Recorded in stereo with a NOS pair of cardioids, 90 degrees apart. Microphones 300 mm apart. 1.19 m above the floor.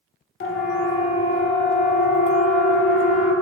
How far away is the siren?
About 3.5 m.